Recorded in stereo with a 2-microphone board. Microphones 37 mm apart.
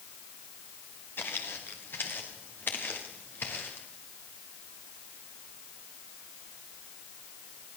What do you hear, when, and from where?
1.2 s footsteps: 70° left (ahead or behind), 3.5 m; by 3.9 s 65° left (ahead or behind), 5.5 m